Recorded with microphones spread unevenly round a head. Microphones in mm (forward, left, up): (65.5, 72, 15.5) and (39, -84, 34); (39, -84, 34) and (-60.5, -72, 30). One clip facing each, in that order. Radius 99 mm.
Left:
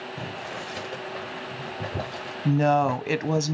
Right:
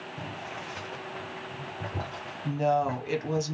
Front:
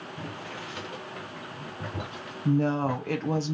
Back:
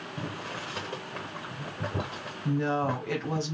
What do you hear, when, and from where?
0.2 s boiling: 130° left, 0.7 m
2.5 s a woman speaking: 60° left, 0.8 m